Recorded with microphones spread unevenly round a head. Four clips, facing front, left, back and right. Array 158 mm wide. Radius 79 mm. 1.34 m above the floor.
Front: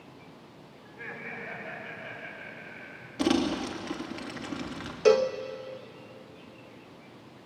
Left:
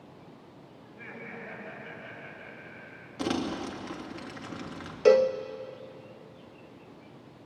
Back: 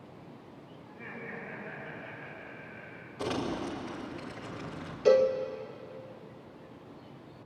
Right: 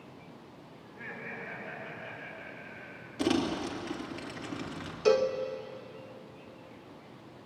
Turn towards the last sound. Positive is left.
turn(degrees=55)